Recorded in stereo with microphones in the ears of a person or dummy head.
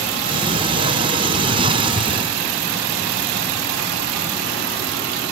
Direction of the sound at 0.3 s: 30° right (ahead or behind).